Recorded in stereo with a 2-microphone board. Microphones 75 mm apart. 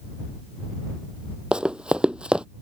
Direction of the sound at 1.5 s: 10° right (ahead or behind).